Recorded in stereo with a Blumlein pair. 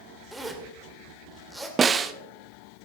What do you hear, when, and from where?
0.3 s a zipper: 10° right, 2.5 m
1.8 s a snare drum: 20° right, 0.9 m